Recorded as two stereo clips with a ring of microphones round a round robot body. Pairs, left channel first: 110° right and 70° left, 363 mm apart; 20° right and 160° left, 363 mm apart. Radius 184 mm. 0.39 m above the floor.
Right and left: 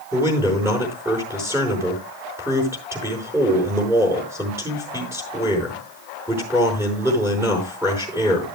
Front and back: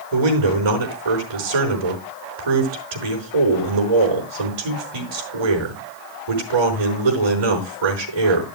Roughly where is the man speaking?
Behind left.